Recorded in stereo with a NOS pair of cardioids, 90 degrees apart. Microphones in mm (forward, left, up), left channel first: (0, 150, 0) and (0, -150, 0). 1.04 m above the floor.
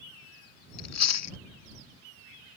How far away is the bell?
No bell in this recording.